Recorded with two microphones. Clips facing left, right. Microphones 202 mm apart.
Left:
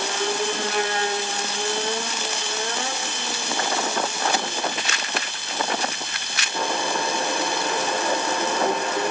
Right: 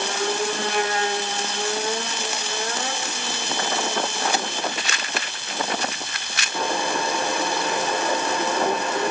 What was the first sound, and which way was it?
Only background noise.